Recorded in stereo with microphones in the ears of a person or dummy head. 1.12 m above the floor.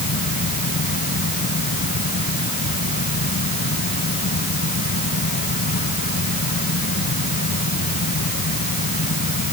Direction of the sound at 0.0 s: 50° left (ahead or behind).